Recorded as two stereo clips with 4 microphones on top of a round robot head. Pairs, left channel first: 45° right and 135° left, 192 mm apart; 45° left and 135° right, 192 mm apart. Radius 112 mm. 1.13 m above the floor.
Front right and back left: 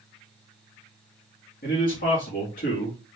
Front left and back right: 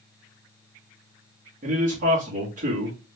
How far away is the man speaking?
About 1.5 m.